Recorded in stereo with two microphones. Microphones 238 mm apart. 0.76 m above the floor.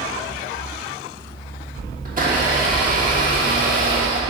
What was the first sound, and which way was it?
A blender, 35° right (ahead or behind).